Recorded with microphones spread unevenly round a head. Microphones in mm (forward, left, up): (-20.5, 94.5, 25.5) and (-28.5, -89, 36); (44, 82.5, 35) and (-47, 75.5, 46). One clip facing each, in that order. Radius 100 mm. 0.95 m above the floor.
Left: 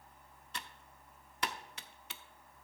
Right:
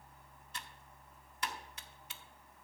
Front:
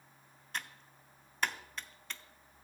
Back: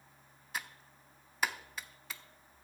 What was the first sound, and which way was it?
Typing on a keyboard, 105° left.